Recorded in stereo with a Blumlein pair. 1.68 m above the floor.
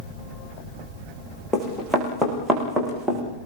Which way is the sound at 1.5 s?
5° left.